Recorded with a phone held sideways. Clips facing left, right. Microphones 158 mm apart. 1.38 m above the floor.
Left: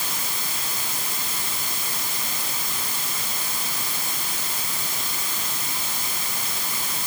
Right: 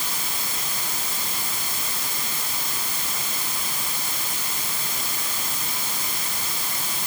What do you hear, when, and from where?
Only background noise.